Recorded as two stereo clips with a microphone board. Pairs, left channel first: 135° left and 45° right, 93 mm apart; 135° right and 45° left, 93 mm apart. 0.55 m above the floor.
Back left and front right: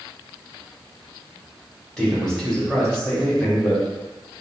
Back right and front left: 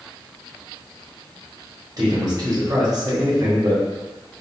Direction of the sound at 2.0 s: 55° left.